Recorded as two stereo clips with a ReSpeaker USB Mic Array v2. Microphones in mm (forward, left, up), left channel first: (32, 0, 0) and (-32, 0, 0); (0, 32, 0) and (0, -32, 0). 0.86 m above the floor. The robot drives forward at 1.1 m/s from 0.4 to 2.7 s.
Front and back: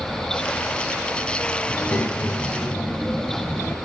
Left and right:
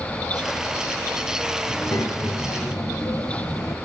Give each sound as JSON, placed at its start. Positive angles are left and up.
{"t": 1.7, "sound": "a child speaking", "azimuth_deg": 55, "distance_m": 3.5}